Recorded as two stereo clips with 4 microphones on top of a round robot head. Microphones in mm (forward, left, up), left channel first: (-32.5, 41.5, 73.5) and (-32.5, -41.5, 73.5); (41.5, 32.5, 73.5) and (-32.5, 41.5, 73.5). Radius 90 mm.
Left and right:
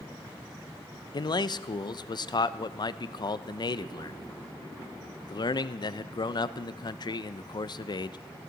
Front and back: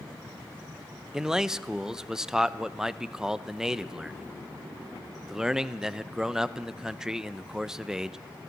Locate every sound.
1.1 s a man speaking: 90° left, 0.5 m